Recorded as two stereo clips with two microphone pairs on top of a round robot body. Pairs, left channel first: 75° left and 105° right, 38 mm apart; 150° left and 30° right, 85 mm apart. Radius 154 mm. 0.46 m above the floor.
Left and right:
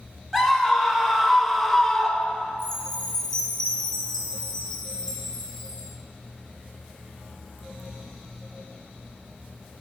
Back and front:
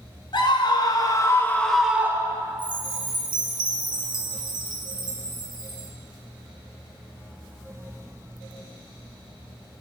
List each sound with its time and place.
0.3 s a scream: 175° left, 1.7 m; by 2.6 s 5° right, 1.2 m
2.6 s a chime: straight ahead, 0.8 m